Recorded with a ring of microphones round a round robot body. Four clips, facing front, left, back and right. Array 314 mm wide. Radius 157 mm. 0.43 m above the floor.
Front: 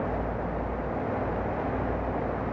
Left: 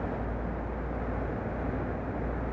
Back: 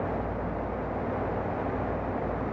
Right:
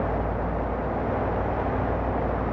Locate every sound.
Only background noise.